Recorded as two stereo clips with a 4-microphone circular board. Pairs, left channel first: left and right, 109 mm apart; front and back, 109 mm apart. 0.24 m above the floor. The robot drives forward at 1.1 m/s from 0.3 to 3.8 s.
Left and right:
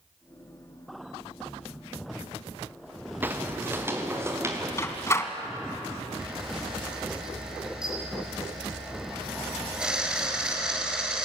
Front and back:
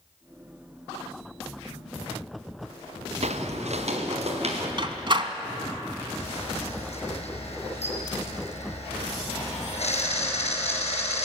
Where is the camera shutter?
10° right, 4.5 m.